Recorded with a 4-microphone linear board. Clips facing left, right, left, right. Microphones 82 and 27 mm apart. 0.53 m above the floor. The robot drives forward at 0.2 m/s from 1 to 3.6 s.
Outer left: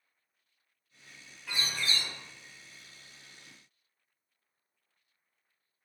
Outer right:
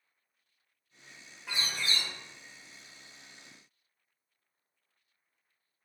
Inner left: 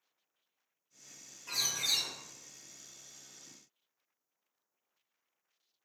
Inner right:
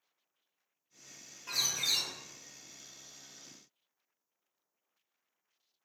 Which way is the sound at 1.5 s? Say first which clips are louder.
Even, inner right 1 dB; 20° right (ahead or behind).